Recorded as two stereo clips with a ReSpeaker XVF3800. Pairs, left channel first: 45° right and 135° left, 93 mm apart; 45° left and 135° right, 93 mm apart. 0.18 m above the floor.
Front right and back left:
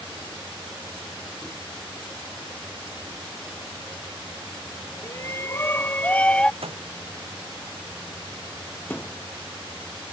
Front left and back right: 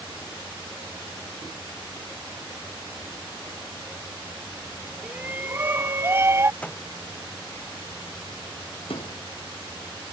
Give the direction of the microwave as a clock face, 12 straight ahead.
8 o'clock.